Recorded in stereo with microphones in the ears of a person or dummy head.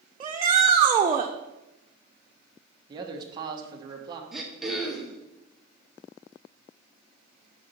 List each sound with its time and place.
0.2 s a shout: 25° right (ahead or behind), 0.6 m
2.9 s a man speaking: 25° right (ahead or behind), 1.2 m
4.3 s throat clearing: 5° right (ahead or behind), 1.3 m